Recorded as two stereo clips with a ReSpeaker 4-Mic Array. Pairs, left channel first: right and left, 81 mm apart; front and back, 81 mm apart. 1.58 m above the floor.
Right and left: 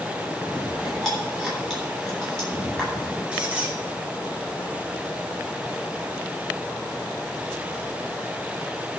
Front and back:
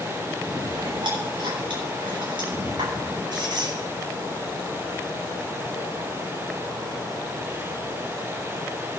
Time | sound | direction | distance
0.4 | chewing | 175° right | 9.5 m
3.3 | a squeak | 165° left | 4 m